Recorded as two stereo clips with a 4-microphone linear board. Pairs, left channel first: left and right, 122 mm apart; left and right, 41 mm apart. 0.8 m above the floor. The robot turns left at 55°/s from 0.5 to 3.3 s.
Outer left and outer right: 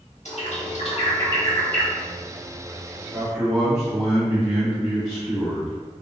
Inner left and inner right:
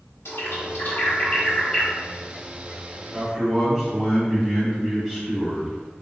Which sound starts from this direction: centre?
A man speaking, at 3.1 s.